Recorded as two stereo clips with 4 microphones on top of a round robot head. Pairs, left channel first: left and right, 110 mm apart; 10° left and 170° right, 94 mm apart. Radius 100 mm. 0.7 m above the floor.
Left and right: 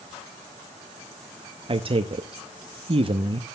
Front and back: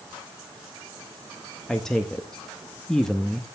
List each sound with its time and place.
1.7 s a man speaking: 75° right, 0.9 m